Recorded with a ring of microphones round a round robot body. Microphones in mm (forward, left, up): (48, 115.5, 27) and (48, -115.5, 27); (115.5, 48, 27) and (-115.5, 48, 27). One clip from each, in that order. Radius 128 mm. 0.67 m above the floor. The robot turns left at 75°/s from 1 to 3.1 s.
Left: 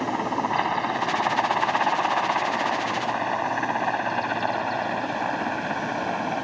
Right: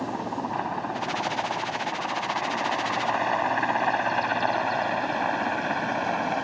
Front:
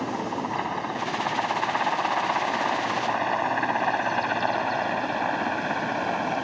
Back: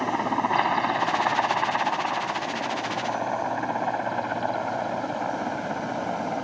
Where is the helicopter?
130° left; by 6.4 s 20° right.